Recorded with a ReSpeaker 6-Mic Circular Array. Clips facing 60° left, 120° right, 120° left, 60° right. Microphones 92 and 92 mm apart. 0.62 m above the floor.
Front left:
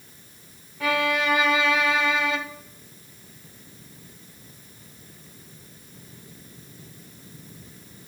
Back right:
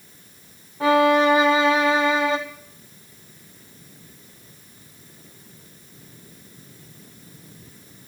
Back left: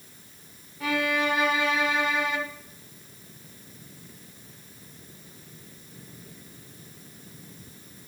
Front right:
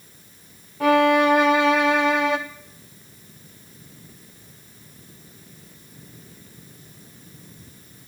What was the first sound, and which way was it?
A violin, 65° right.